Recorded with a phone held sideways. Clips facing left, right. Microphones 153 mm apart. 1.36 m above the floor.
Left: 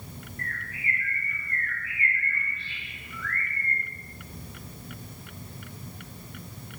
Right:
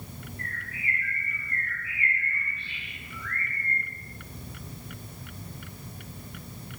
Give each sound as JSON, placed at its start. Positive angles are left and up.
{"t": 0.4, "sound": "a bird", "side_deg": -25, "distance_m": 4.5}